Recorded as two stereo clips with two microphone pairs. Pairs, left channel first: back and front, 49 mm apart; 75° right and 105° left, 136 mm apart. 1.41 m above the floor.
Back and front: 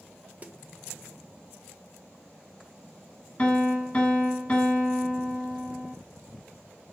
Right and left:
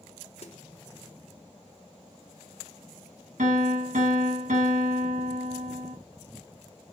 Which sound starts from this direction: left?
A piano, at 3.4 s.